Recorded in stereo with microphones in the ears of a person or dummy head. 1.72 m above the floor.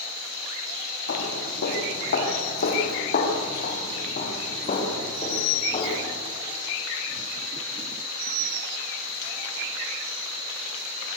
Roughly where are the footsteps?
Left.